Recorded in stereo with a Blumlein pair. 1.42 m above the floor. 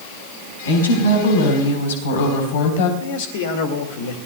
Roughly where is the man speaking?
Ahead left.